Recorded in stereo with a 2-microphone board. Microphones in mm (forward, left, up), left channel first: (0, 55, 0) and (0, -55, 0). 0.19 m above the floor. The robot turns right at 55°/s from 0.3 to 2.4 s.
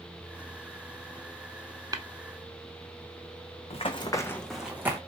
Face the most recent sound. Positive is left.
turn(degrees=-20)  # may be behind; listen again after turning